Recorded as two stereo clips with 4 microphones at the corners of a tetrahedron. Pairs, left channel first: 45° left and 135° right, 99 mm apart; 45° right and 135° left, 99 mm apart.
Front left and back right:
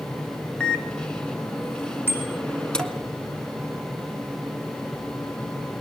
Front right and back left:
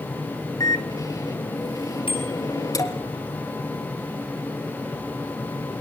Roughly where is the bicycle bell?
Ahead.